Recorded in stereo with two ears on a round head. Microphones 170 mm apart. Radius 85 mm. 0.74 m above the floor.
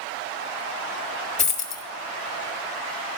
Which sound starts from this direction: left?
A dropped coin, at 1.4 s.